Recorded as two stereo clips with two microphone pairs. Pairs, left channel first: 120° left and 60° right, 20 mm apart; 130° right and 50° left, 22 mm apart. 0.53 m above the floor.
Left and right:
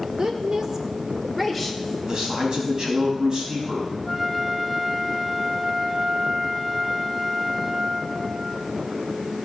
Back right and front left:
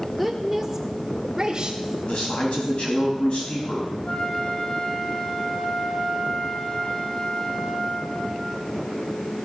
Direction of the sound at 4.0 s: 150° right.